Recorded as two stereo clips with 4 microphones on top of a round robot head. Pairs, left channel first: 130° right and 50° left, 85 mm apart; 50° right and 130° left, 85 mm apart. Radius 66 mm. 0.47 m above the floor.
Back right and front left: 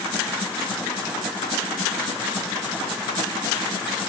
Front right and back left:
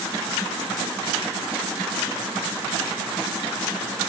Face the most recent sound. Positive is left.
No sound to turn to.